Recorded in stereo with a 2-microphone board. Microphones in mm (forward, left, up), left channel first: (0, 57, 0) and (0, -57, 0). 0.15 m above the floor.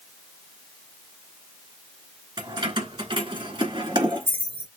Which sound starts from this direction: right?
Keys jangling, at 2.4 s.